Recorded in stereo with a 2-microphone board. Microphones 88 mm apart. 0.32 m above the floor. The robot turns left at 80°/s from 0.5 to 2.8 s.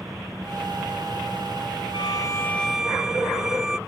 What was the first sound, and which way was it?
An engine running, straight behind.